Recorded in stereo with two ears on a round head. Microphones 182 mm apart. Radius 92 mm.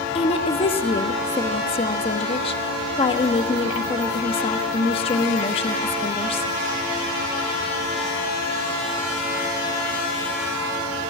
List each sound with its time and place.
0.1 s a woman speaking: 25° left (ahead or behind), 1.1 m